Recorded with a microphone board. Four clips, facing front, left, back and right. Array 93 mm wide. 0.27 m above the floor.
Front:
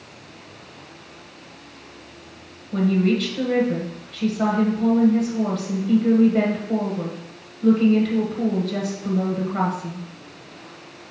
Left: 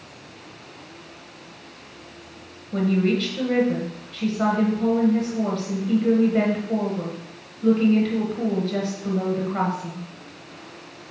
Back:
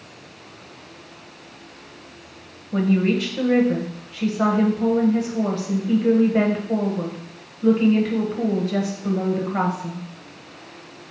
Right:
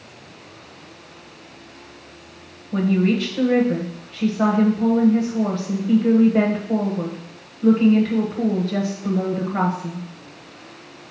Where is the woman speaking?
150° right, 1.3 m.